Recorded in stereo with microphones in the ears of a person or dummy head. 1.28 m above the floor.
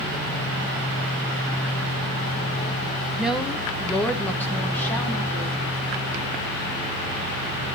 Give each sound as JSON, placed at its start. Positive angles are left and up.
{"t": 3.2, "sound": "a woman speaking", "side_deg": 0, "distance_m": 0.9}